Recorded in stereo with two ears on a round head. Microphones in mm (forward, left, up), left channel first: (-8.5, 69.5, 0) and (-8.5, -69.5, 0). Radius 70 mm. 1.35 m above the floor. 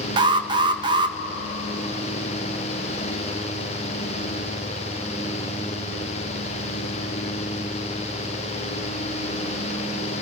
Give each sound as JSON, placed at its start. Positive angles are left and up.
{"t": 0.2, "sound": "an alarm", "side_deg": -30, "distance_m": 0.8}